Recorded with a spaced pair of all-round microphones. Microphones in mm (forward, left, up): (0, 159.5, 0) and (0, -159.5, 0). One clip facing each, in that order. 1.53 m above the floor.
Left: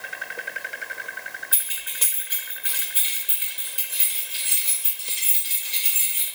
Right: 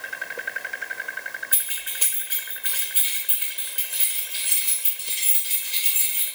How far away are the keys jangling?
About 1.3 m.